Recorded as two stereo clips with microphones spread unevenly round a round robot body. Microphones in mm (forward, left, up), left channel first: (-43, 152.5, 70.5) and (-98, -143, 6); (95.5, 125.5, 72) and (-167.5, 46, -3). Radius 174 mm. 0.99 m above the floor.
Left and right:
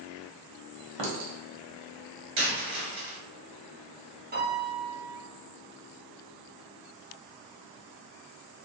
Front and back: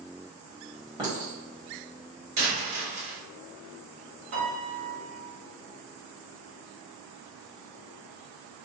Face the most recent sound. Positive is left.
turn(degrees=-155)